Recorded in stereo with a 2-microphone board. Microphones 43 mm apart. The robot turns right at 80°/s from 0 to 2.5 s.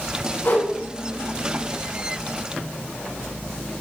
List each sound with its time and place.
0.5 s a whoosh: 60° left (ahead or behind), 7.5 m; by 0.7 s 75° left (ahead or behind), 7.5 m